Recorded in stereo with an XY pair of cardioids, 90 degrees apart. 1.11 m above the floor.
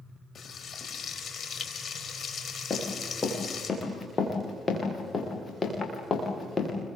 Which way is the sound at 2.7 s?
40° left.